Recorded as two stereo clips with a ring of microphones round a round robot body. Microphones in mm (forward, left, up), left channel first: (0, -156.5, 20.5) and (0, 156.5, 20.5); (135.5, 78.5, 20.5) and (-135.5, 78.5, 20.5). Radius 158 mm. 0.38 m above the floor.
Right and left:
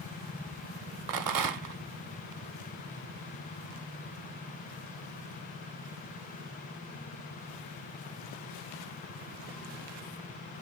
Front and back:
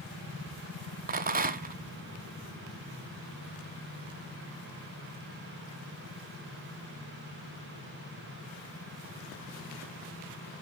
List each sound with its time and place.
1.1 s a rattle: 120° left, 0.9 m